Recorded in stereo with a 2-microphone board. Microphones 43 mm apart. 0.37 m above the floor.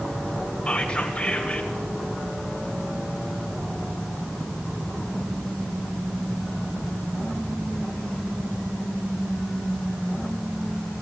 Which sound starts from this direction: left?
Whispering, at 0.7 s.